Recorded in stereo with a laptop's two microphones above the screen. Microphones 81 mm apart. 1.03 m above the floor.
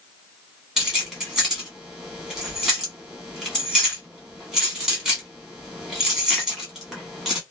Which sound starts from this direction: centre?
Keys jangling, at 0.8 s.